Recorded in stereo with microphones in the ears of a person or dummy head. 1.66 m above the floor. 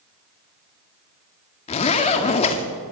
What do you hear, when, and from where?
1.7 s a zipper: 30° left (ahead or behind), 1.9 m